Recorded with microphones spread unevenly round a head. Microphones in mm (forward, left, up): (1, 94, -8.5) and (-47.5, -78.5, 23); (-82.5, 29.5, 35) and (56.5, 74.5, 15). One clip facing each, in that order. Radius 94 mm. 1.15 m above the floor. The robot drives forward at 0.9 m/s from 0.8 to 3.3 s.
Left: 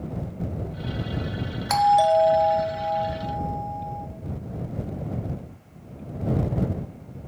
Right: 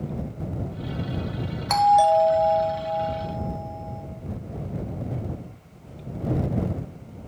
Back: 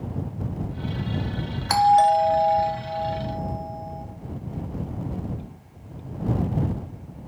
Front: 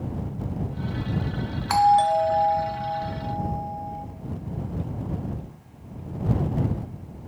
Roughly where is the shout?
I don't hear a shout.